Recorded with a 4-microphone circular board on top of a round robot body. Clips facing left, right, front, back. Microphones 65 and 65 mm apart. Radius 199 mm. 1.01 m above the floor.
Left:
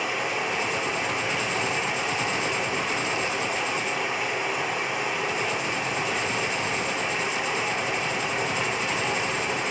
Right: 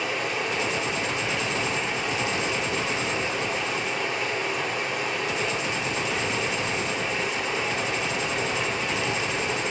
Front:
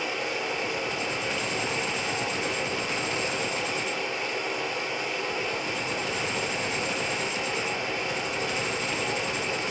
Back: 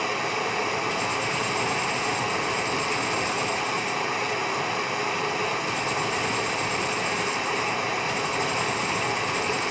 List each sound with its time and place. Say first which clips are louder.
0.0 s running water: even, back 4 dB; straight behind, 1.5 m